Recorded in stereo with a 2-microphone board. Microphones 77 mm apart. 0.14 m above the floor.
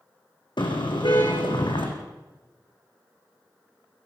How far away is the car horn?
About 4.5 m.